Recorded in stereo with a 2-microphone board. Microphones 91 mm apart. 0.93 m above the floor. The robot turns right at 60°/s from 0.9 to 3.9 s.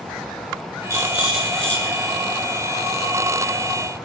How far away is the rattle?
About 6.5 m.